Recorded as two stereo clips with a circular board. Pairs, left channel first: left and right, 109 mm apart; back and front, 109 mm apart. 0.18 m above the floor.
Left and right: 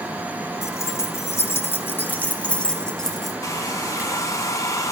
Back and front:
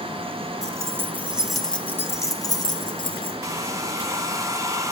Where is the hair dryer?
45° left, 1.1 m.